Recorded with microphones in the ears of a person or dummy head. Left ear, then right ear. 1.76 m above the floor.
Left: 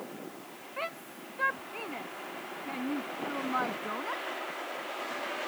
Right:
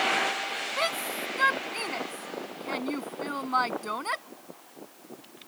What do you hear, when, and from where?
0.8 s a shout: 90° right; by 4.2 s 85° right